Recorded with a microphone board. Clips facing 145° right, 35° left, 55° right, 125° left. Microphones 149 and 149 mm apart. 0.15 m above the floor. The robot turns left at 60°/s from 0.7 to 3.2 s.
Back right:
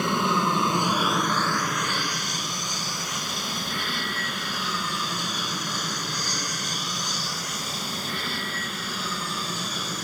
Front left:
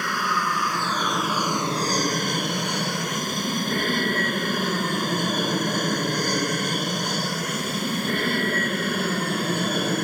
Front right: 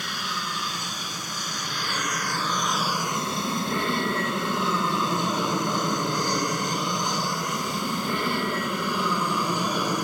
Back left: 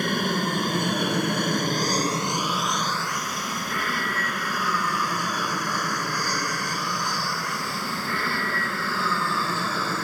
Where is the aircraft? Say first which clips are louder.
Back right 3 dB, back left 9 dB; 150° left; by 10.1 s 15° left.